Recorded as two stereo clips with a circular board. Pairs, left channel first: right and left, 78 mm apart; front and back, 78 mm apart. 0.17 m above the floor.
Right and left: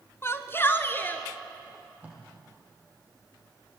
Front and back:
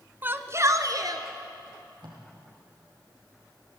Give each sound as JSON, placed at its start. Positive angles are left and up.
{"t": 0.2, "sound": "a shout", "azimuth_deg": -125, "distance_m": 1.3}
{"t": 1.7, "sound": "tape being pulled", "azimuth_deg": 160, "distance_m": 5.5}